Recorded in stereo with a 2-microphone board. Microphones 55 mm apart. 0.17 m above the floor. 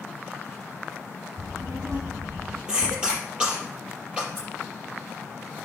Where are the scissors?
40° right (ahead or behind), 5.5 m.